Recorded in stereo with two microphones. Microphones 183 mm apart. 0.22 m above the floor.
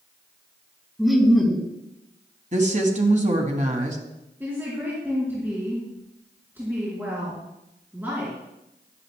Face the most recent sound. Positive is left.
turn(degrees=-10)  # may be behind; listen again after turning